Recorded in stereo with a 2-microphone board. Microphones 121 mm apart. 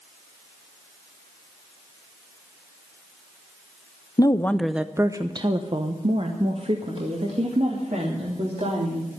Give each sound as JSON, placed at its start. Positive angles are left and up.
{"t": 4.2, "sound": "a woman speaking", "side_deg": 35, "distance_m": 0.6}